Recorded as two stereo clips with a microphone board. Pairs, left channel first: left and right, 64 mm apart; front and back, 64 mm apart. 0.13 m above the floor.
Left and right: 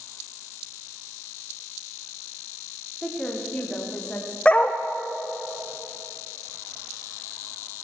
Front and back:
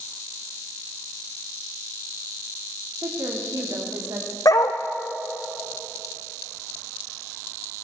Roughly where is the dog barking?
Ahead.